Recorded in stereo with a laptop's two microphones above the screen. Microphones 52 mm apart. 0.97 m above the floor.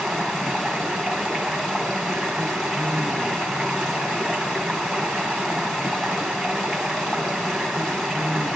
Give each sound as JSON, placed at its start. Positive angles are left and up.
{"t": 0.0, "sound": "running water", "side_deg": 5, "distance_m": 1.4}